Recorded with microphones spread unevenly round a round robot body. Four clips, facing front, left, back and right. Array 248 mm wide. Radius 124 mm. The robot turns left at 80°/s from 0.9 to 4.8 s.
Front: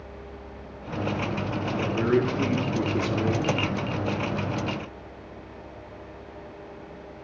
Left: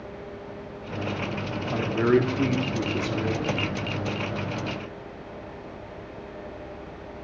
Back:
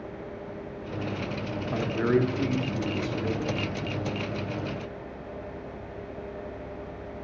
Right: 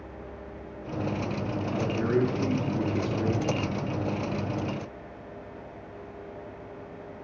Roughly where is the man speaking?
Behind left.